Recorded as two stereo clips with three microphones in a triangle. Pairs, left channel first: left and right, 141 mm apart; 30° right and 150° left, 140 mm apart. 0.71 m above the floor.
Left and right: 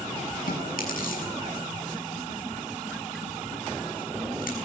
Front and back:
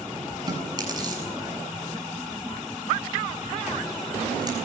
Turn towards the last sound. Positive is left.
turn(degrees=90)